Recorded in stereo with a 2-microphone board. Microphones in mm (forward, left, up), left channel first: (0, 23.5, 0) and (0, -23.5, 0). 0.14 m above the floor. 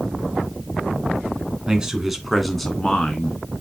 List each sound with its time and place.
1.7 s a man speaking: 20° right (ahead or behind), 1.7 m; by 3.4 s 25° left (ahead or behind), 1.8 m